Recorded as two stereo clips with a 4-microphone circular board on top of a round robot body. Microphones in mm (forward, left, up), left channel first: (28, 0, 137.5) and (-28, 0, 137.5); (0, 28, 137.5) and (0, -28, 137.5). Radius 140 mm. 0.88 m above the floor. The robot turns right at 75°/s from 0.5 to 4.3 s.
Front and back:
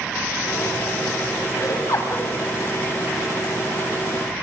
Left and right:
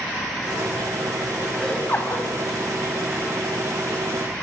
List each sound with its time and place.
1.6 s laughter: 5° left, 6.5 m; by 2.3 s 60° left, 6.5 m